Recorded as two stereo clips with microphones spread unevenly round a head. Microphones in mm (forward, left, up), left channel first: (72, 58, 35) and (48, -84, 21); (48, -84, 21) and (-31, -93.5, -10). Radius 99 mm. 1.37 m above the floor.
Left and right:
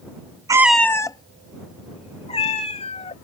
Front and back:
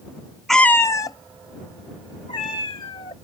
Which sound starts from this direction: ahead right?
A cat meowing, at 0.5 s.